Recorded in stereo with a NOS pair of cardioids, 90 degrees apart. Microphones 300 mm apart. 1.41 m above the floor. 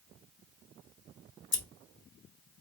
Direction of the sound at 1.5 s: 40° left.